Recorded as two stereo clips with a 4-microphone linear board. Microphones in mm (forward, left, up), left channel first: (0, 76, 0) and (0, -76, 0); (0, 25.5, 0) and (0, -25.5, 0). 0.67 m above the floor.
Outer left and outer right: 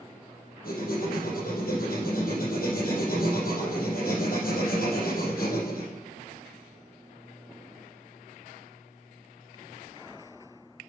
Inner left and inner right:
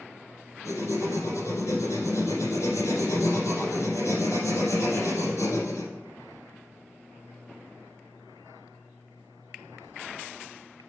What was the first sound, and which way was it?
Writing, 70° left (ahead or behind).